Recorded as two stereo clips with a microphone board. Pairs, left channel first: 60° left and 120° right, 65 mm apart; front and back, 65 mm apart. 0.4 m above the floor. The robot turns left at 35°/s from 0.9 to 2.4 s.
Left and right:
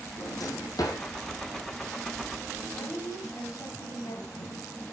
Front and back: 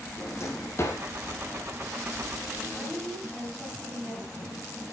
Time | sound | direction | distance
0.2 | a drawer | 45° left | 4 m
2.8 | a woman speaking | 95° left | 4 m